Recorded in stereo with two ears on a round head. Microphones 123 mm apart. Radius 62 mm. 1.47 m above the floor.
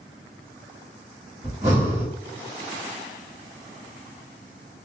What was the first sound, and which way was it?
Breathing, 25° right (ahead or behind).